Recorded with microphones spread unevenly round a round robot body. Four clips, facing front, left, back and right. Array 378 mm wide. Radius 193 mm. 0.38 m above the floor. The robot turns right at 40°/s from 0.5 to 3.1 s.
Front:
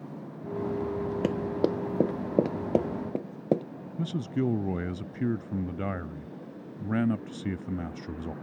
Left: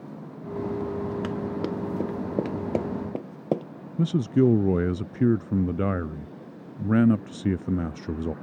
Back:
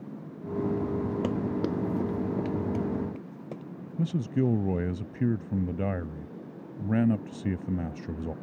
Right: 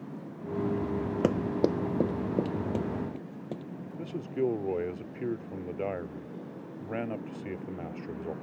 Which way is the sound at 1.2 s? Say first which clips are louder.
Right 2 dB, front 2 dB; 40° right.